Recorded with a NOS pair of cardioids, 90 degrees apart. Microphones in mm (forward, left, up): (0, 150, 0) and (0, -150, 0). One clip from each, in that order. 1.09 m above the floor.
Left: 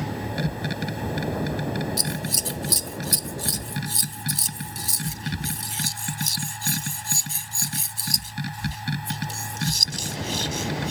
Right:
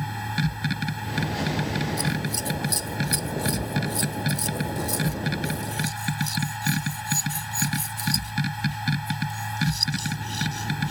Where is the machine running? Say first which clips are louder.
Even; 30° right.